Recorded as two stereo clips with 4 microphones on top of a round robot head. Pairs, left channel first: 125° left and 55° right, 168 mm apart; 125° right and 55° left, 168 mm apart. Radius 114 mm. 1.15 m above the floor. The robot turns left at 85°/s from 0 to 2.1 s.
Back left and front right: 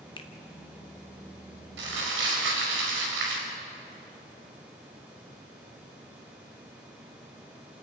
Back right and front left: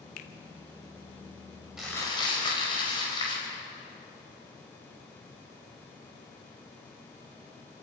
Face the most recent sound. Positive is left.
turn(degrees=-60)